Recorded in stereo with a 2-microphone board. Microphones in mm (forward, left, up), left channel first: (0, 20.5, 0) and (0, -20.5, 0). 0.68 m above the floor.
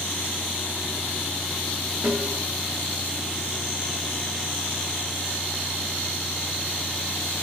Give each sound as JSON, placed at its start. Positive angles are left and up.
{"t": 2.0, "sound": "a snare drum", "side_deg": -90, "distance_m": 0.8}